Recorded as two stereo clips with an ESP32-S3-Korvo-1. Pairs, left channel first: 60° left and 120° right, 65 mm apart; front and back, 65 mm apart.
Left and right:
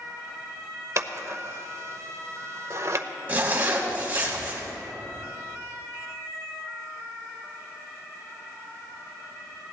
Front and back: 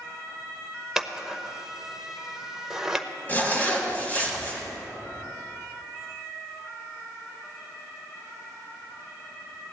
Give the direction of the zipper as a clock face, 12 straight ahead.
2 o'clock.